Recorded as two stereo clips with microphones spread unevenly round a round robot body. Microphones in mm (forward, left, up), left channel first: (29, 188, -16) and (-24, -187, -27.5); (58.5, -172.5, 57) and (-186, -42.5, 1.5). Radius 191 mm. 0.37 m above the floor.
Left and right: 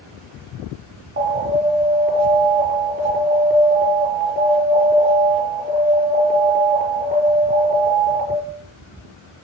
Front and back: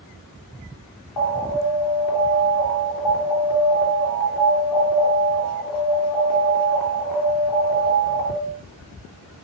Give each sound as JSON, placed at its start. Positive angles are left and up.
{"t": 1.2, "sound": "an alarm", "azimuth_deg": -30, "distance_m": 4.5}